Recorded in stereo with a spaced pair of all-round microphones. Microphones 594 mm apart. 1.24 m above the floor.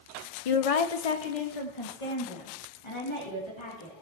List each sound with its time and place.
0.5 s a woman speaking: 65° left (ahead or behind), 0.6 m; by 3.9 s 50° left (ahead or behind), 2.5 m